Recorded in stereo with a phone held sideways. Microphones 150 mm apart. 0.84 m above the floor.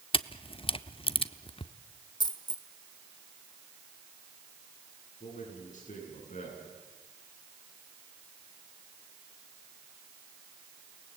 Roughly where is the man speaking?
Left.